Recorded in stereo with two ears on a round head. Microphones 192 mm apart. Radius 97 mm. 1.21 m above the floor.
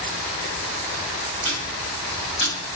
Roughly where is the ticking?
Right.